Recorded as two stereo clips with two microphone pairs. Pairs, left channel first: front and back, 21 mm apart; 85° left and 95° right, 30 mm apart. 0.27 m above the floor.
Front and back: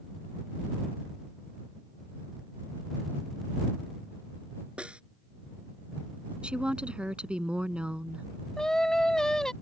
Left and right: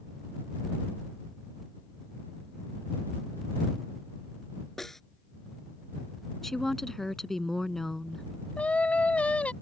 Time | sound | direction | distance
4.8 | a snare drum | 165° left | ?
6.4 | a woman speaking | 165° left | ?
8.6 | singing | 55° left | ?